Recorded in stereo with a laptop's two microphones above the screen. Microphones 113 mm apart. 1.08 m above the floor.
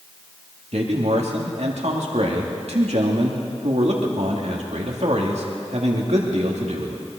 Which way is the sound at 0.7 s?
70° right (ahead or behind).